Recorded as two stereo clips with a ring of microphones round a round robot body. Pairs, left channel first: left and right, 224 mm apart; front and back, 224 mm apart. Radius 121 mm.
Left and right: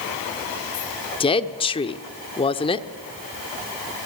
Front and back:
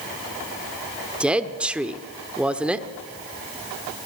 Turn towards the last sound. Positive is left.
turn(degrees=100)